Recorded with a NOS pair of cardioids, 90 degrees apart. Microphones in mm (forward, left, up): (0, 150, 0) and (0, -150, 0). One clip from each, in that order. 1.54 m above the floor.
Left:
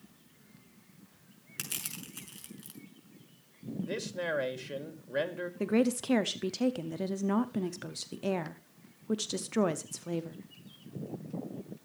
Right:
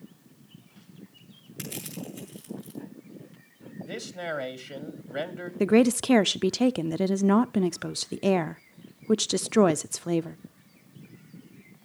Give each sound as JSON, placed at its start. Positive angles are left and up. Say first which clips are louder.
{"t": 1.6, "sound": "crushing", "louder": "right 1 dB", "azimuth_deg": 60, "distance_m": 6.0}
{"t": 3.8, "sound": "a man speaking", "louder": "right 1 dB", "azimuth_deg": 0, "distance_m": 3.0}
{"t": 5.6, "sound": "a woman speaking", "louder": "right 8 dB", "azimuth_deg": -35, "distance_m": 0.5}